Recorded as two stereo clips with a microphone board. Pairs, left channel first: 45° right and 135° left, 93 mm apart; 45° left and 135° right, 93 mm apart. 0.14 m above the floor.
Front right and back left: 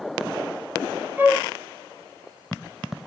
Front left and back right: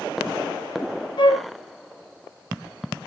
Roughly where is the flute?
Left.